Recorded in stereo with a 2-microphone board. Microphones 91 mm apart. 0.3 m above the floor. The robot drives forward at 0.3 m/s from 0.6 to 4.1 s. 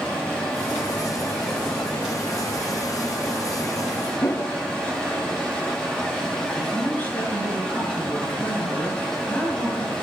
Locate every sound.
0.0 s running water: 10° left (ahead or behind), 7 m
4.2 s a whoosh: 35° left (ahead or behind), 0.8 m
6.5 s a man speaking: 15° left (ahead or behind), 5.5 m